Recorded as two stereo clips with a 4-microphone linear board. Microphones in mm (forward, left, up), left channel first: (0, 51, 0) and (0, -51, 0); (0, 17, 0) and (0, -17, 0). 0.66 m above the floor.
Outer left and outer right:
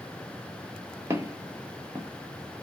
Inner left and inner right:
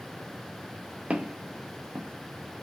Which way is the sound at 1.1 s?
30° right (ahead or behind).